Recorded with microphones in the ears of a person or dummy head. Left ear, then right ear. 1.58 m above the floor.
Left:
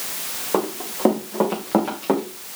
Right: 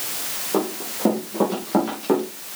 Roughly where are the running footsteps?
Left.